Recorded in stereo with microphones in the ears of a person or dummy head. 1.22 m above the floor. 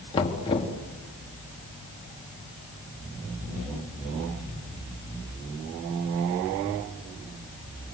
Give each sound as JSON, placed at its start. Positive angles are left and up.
{"t": 0.1, "sound": "knocking", "side_deg": 25, "distance_m": 2.5}